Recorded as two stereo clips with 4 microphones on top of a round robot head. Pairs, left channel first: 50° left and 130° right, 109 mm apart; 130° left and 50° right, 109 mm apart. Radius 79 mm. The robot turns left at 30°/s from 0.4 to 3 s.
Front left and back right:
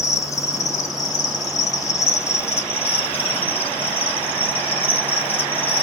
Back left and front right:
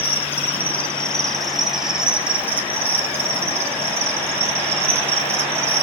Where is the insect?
75° left, 0.8 m; by 5.8 s 5° right, 0.8 m.